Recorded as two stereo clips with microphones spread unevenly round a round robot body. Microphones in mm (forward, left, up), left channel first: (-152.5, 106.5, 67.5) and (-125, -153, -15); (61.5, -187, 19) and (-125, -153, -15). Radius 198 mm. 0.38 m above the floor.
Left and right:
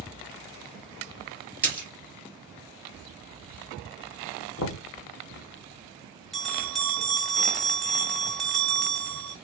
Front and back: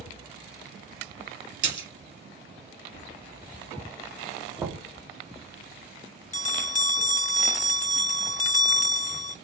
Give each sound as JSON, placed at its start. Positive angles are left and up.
{"t": 1.6, "sound": "a splash", "azimuth_deg": -175, "distance_m": 2.5}
{"t": 4.6, "sound": "knocking", "azimuth_deg": 120, "distance_m": 0.7}
{"t": 6.3, "sound": "a bell", "azimuth_deg": -30, "distance_m": 0.6}